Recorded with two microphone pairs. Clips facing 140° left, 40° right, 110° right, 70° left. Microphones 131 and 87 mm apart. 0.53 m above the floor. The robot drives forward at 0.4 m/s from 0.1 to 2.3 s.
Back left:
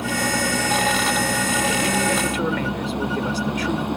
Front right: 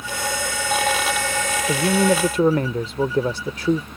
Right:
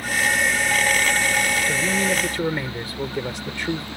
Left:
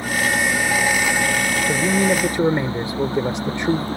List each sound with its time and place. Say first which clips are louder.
0.0 s a vehicle: back left 4 dB, left 2 dB; 135° left; by 4.0 s 125° left
1.7 s a man speaking: front right 8 dB, left 4 dB; 5° left; by 3.9 s 10° left